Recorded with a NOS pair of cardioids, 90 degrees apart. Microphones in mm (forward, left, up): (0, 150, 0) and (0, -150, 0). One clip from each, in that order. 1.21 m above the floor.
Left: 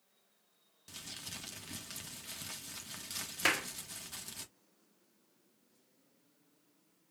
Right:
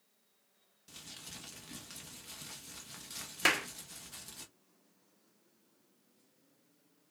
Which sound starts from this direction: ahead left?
Crumpling, at 0.9 s.